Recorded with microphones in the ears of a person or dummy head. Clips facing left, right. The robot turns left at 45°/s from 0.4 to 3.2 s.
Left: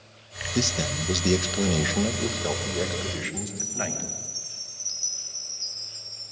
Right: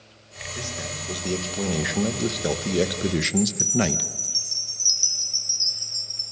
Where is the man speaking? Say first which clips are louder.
Left 8 dB; 60° left, 1.6 m; by 4.1 s 60° right, 1.6 m.